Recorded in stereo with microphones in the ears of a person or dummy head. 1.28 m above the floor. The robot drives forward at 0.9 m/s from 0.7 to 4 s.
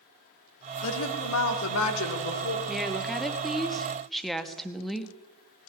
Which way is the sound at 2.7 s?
Centre (ahead or behind).